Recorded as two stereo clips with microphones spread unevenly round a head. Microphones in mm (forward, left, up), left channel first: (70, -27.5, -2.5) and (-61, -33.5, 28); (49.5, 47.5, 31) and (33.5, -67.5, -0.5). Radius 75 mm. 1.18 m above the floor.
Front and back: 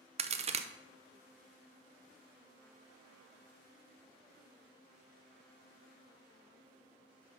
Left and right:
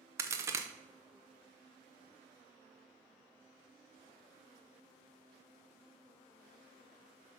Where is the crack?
140° right, 0.6 m.